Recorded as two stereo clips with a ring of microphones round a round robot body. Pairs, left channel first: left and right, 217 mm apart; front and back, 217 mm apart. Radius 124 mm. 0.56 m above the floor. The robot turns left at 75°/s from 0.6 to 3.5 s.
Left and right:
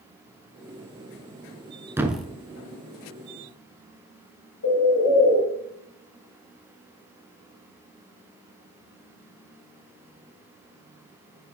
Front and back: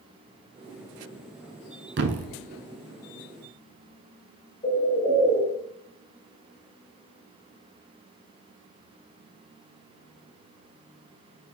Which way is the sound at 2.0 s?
165° right.